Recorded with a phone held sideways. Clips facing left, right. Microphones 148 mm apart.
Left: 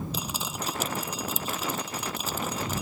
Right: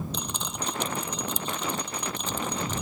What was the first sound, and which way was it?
Dripping, 5° left (ahead or behind).